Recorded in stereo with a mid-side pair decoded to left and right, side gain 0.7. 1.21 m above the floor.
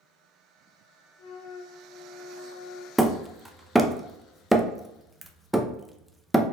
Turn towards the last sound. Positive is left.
turn(degrees=0)